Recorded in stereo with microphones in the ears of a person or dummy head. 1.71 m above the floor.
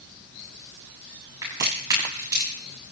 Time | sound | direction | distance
1.4 | a crack | 20° right (ahead or behind) | 10 m